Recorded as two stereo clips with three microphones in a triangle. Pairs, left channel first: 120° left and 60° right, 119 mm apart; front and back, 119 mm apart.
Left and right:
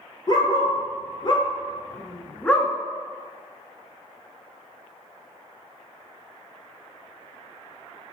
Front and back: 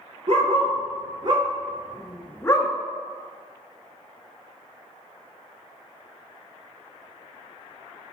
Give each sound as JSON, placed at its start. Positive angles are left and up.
{"t": 0.3, "sound": "a dog barking", "azimuth_deg": 165, "distance_m": 1.1}